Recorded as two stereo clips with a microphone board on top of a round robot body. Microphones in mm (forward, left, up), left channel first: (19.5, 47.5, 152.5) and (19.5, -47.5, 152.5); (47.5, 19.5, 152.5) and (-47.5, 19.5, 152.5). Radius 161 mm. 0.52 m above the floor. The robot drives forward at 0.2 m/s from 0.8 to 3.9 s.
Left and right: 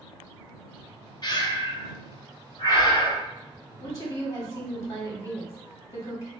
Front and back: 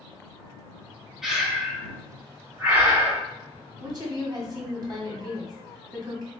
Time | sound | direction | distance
1.2 | breathing | 95° left | 1.5 m
3.8 | a woman speaking | 140° left | 1.5 m